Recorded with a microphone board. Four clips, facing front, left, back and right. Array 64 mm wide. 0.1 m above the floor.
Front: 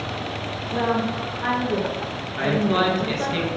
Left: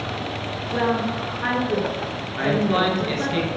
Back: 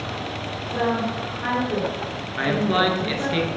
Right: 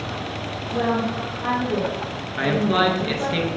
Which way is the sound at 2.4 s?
140° right.